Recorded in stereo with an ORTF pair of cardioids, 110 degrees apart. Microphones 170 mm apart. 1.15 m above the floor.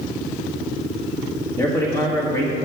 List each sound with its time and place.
1.6 s a man speaking: 20° left, 1.6 m